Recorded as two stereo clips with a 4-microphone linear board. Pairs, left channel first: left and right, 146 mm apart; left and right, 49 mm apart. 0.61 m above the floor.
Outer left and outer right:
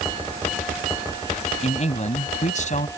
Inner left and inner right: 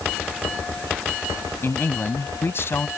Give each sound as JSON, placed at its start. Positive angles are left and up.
{"t": 1.6, "sound": "a man speaking", "side_deg": 50}